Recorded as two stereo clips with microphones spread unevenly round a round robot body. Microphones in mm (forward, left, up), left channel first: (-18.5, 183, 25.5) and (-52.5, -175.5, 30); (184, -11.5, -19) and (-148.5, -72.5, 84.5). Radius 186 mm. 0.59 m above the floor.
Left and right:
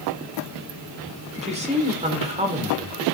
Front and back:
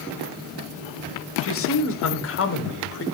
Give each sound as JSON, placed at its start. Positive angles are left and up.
{"t": 1.4, "sound": "a man speaking", "azimuth_deg": -25, "distance_m": 2.0}